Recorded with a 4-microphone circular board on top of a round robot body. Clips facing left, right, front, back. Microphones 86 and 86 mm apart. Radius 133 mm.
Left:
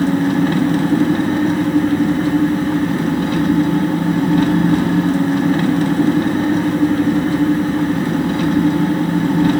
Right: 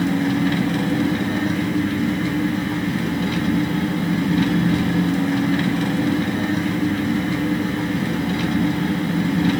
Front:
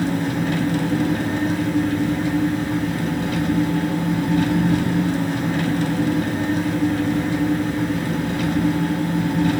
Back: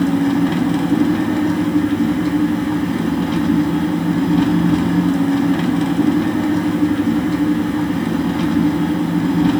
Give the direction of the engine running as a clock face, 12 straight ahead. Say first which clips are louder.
Left 4 dB, back 7 dB; 7 o'clock.